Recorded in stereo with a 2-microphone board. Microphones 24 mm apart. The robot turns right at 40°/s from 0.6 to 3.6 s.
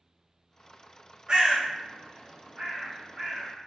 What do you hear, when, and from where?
1.3 s a bird: 40° right (ahead or behind), 0.6 m; by 3.5 s 30° right (ahead or behind), 0.6 m